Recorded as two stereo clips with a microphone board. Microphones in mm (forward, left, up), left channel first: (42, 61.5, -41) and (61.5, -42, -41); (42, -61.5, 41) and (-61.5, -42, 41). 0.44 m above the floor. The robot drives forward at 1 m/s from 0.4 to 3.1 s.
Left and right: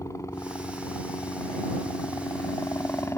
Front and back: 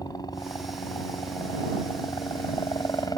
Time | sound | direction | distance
0.0 | a helicopter | 40° left | ?